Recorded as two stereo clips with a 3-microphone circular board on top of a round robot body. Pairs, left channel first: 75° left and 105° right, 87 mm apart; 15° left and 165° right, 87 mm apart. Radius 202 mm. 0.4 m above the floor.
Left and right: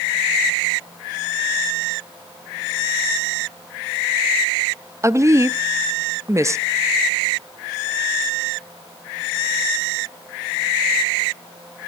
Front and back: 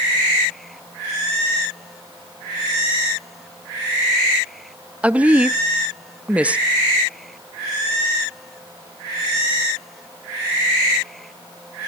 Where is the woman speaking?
105° right, 0.9 m.